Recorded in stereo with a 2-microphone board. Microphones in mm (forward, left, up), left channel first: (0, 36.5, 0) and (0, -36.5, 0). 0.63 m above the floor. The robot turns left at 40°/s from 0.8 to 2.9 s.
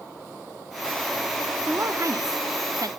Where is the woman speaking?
50° right, 0.9 m; by 2.9 s 100° right, 0.9 m.